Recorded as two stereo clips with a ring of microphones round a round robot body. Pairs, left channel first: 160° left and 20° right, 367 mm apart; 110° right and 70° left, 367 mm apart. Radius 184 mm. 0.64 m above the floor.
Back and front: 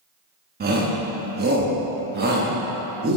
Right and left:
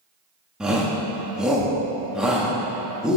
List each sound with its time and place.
0.6 s a shout: 20° right, 1.0 m